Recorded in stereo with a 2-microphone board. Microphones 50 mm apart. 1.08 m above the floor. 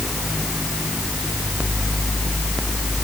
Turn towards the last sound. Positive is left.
No sound to turn to.